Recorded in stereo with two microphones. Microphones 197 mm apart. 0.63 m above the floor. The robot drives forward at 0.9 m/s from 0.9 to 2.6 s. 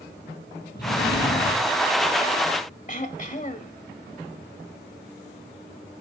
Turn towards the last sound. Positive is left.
turn(degrees=40)  # may be behind; listen again after turning